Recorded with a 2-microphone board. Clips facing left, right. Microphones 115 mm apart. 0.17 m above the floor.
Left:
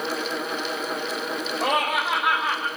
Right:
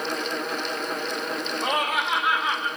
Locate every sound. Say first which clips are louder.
1.6 s laughter: left 3 dB; 70° left (ahead or behind), 6.5 m; by 2.7 s 55° left (ahead or behind), 6.5 m